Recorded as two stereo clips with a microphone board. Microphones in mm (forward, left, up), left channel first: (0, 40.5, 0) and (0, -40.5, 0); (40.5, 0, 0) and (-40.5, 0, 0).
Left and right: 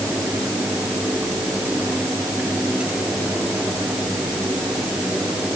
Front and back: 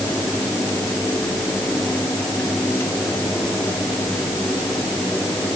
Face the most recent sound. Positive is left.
No sound to turn to.